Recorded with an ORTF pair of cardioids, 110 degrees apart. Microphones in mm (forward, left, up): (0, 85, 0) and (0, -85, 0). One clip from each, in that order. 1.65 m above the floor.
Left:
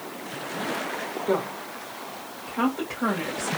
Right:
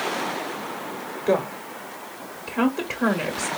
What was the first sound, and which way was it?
A woman speaking, 35° right.